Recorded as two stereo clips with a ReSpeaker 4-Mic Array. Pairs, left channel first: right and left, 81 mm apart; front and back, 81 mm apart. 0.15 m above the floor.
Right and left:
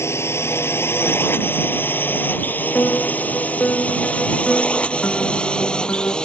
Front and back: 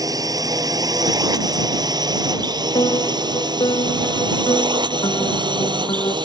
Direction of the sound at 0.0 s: 145° right.